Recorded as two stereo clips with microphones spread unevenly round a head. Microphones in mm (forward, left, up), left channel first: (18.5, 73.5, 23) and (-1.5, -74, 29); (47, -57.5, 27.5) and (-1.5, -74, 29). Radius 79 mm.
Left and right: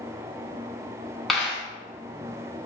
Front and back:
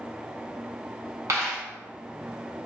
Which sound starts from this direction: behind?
A dropped coin, at 1.3 s.